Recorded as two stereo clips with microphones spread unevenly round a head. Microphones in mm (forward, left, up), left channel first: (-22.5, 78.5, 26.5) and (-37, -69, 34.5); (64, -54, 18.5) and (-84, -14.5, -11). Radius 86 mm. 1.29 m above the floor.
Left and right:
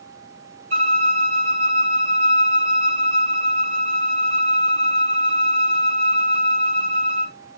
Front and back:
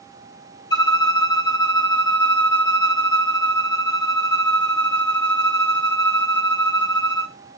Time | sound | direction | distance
0.7 | a violin | 50° right | 1.5 m